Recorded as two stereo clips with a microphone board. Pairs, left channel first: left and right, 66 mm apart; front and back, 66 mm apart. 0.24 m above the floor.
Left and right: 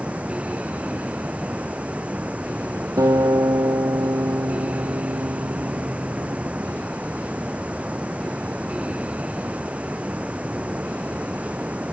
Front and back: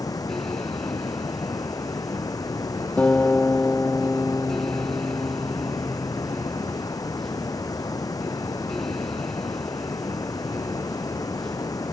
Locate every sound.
0.0 s running water: 20° right
3.0 s a guitar: 70° right